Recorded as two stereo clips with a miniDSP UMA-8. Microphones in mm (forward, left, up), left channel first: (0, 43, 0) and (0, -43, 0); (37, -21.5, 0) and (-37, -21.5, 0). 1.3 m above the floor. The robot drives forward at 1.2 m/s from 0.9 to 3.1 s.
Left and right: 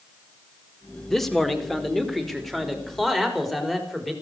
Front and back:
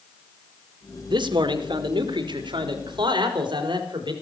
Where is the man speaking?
175° left, 2.0 m; by 4.1 s straight behind, 4.5 m.